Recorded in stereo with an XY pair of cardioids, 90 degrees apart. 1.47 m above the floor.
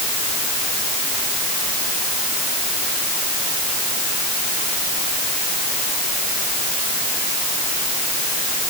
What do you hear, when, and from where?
Only background noise.